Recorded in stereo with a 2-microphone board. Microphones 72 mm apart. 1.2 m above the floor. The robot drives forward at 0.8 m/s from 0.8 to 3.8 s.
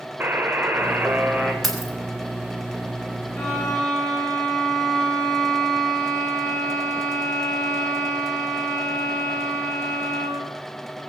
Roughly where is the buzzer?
Right.